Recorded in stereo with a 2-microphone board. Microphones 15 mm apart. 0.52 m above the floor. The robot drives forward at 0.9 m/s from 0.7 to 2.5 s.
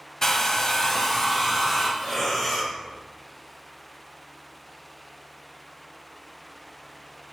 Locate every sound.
0.2 s a hair dryer: 35° left (ahead or behind), 0.8 m; by 1.9 s 15° left (ahead or behind), 1.7 m
2.0 s breathing: 30° left (ahead or behind), 2.5 m; by 2.7 s 25° left (ahead or behind), 3 m